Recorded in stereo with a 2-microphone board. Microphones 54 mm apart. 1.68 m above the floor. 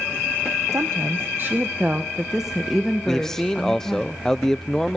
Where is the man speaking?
10° left (ahead or behind), 0.7 m.